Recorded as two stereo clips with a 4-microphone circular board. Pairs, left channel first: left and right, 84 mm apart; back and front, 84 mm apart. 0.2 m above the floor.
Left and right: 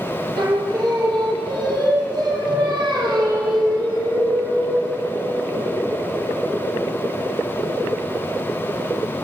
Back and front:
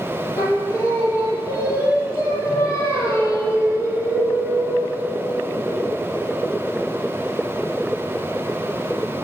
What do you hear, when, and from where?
0.4 s singing: 125° right, 6 m